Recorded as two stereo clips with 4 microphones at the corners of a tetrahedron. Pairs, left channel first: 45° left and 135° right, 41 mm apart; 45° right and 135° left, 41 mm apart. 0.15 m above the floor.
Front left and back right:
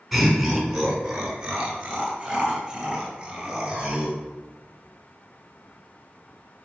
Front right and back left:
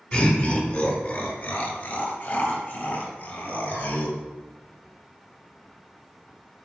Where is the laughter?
45° right, 1.8 m; by 4.2 s 65° right, 3.5 m.